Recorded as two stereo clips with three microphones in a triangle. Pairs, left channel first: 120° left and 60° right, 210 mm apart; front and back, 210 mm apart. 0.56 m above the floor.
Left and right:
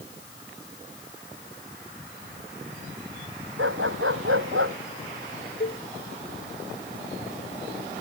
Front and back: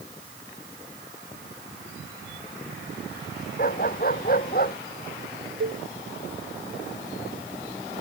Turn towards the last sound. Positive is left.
turn(degrees=160)